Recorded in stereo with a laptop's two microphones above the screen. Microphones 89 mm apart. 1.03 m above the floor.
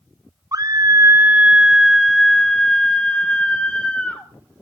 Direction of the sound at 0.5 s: 40° right (ahead or behind).